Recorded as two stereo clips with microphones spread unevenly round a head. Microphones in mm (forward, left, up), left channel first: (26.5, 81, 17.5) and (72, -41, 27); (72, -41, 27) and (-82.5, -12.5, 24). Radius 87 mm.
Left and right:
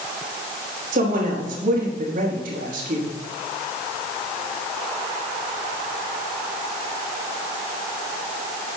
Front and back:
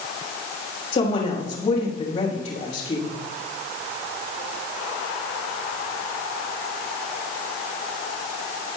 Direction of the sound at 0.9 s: 55° right.